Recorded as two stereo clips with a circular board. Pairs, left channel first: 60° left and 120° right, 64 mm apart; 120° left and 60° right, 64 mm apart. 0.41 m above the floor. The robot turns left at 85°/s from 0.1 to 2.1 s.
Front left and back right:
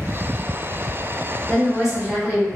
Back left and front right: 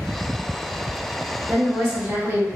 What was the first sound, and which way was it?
A woman speaking, 15° right.